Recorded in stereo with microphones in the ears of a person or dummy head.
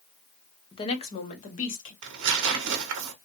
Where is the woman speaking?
25° left (ahead or behind), 0.6 m; by 1.9 s 45° left (ahead or behind), 1.3 m.